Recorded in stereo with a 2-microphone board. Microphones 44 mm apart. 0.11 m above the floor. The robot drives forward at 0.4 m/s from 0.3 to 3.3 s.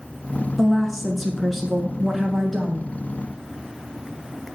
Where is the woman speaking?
5° right (ahead or behind), 1.1 m.